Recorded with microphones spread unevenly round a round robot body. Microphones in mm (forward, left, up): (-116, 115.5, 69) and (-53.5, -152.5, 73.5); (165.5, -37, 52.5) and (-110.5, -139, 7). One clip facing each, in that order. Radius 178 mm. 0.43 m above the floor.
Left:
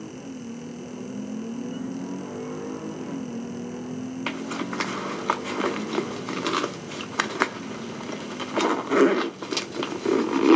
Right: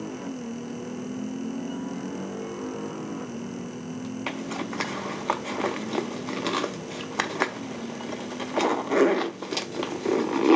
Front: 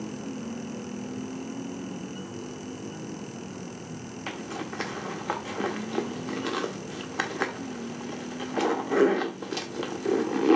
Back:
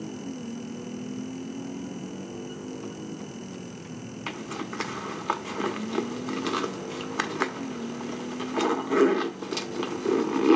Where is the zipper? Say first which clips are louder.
Left 2 dB, even; 160° left, 0.7 m.